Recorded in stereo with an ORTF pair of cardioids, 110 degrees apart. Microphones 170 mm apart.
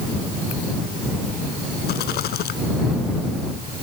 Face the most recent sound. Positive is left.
turn(degrees=70)